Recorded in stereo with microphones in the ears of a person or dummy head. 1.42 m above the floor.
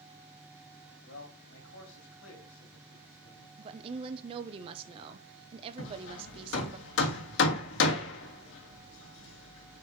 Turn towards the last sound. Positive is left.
turn(degrees=70)  # may be behind; listen again after turning